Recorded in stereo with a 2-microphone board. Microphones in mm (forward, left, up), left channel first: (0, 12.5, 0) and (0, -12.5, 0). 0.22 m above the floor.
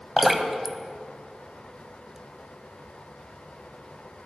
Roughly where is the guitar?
I don't hear a guitar.